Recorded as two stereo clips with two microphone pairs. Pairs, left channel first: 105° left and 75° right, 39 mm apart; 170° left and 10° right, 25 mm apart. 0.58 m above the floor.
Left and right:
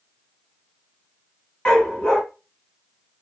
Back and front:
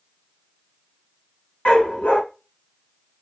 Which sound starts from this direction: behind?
A dog barking, at 1.6 s.